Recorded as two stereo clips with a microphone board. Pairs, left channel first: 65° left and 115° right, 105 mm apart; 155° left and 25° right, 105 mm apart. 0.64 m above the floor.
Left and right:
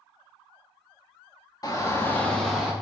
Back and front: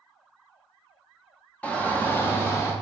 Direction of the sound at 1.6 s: 90° left.